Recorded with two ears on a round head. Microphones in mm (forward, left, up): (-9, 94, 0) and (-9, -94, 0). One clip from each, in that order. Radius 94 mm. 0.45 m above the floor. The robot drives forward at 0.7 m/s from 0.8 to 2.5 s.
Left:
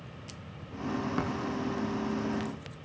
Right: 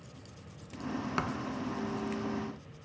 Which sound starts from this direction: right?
A thud, at 1.2 s.